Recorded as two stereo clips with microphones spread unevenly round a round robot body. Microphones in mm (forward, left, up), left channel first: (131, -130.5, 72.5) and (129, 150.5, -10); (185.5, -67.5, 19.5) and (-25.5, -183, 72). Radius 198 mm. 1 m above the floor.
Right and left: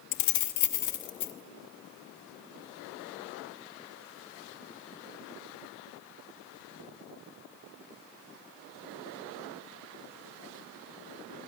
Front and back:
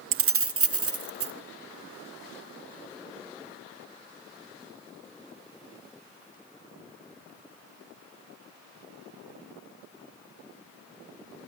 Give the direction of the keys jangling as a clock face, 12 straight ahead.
4 o'clock.